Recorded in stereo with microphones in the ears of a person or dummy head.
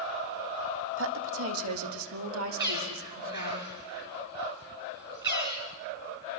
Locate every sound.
1.0 s a woman speaking: 75° right (ahead or behind), 1.8 m; by 3.6 s 70° right (ahead or behind), 4 m
2.6 s a bird: 20° right (ahead or behind), 4.5 m